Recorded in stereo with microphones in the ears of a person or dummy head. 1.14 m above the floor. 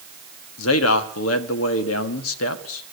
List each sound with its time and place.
0.6 s a man speaking: 80° left, 1.5 m